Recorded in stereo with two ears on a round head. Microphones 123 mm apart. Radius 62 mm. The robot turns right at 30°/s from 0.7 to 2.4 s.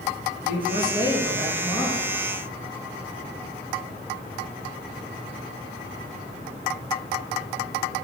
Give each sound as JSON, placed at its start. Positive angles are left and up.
{"t": 0.4, "sound": "a man speaking", "azimuth_deg": 145, "distance_m": 2.5}